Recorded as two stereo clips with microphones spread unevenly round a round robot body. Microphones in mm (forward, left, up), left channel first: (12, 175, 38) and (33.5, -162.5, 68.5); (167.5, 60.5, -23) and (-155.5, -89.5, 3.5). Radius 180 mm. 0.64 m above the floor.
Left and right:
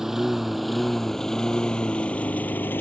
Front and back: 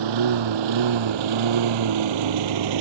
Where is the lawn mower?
175° right; by 2.8 s straight behind.